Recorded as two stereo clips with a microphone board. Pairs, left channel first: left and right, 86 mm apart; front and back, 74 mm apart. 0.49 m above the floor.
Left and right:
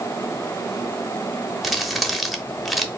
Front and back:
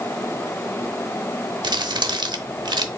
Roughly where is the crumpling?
Behind.